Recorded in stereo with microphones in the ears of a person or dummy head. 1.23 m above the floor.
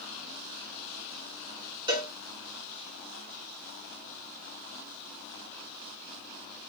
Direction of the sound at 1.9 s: 20° right (ahead or behind).